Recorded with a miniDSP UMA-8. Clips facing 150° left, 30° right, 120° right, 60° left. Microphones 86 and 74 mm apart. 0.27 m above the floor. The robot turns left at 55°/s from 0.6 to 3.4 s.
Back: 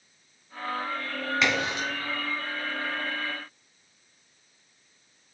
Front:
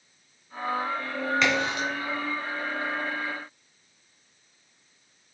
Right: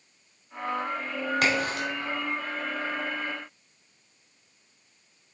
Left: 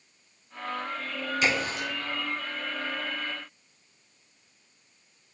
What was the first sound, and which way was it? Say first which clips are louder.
A crack: even, even; 125° right.